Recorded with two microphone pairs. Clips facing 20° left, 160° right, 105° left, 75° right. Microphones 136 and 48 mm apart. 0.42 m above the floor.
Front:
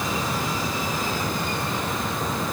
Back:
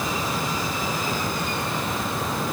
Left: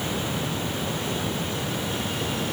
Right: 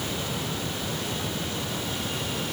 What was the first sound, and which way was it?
Only background noise.